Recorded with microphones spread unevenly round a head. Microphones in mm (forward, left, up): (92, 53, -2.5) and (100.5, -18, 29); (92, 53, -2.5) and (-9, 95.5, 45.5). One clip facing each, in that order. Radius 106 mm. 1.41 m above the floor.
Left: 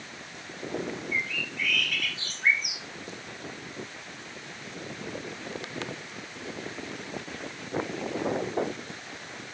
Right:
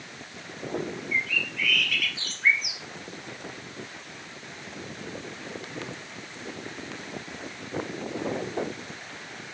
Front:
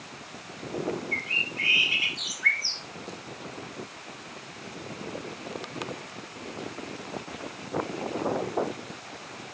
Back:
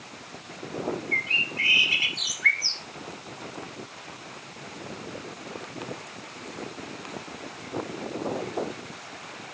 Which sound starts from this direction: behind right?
A bird, at 1.1 s.